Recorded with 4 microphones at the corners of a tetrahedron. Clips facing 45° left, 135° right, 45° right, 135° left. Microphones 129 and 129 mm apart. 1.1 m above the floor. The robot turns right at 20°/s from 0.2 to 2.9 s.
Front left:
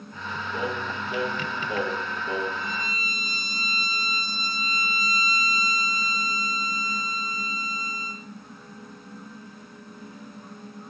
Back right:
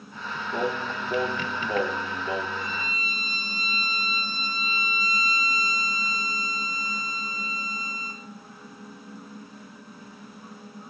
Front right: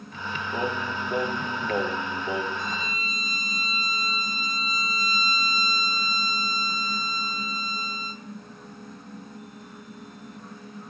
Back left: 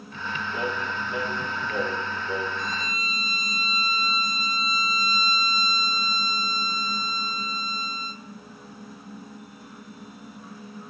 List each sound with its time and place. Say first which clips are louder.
0.5 s singing: back right 3 dB, front right 2 dB; 100° right, 0.6 m; by 2.5 s 60° right, 0.6 m
2.6 s a violin: even, even; 130° right, 0.9 m; by 8.2 s 125° right, 0.9 m